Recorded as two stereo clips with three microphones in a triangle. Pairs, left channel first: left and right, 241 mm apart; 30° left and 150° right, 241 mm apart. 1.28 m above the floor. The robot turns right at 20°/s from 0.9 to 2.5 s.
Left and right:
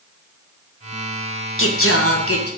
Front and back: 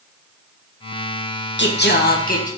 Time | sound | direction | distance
1.6 | singing | 65° left | 1.7 m